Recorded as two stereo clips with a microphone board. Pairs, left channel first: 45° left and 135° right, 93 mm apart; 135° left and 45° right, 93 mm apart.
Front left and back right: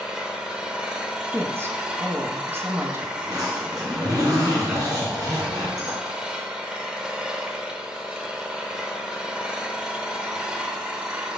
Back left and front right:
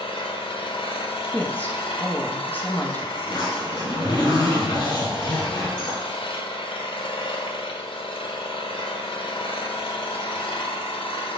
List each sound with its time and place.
0.0 s an engine running: 145° left, 0.7 m
1.3 s a woman speaking: 175° right, 0.8 m
3.2 s a zipper: 175° left, 3 m